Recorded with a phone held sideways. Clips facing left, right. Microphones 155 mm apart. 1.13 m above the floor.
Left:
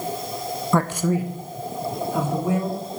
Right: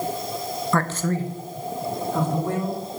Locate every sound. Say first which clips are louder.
0.7 s a man speaking: left 3 dB; 15° left (ahead or behind), 0.5 m; by 2.8 s 10° left (ahead or behind), 3.5 m